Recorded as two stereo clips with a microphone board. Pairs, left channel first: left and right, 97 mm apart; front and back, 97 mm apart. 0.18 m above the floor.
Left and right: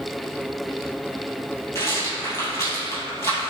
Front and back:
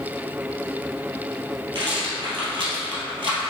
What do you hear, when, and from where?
1.8 s a rattle: 150° left, 1.7 m